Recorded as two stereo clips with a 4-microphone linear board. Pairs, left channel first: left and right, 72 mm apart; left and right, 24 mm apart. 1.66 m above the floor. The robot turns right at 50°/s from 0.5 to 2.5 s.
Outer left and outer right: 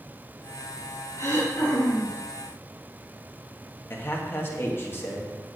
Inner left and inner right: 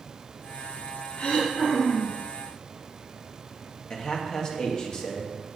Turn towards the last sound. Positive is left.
turn(degrees=35)  # may be behind; listen again after turning